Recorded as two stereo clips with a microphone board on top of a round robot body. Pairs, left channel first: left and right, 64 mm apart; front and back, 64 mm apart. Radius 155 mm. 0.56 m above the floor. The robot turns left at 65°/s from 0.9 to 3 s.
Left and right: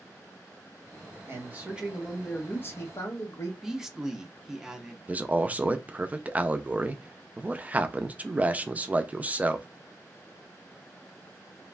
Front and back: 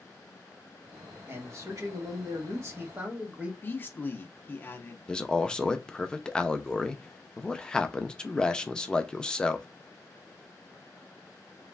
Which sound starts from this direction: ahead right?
A man speaking, at 5.1 s.